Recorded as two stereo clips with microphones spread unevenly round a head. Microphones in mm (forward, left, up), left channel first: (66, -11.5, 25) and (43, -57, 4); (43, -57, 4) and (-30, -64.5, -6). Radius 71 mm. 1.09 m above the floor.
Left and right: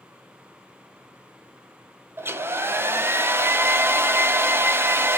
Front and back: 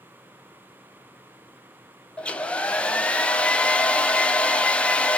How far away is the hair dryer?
About 0.8 m.